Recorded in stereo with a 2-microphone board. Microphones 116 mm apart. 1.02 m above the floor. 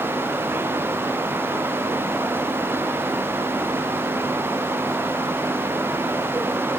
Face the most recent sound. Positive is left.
No sound to turn to.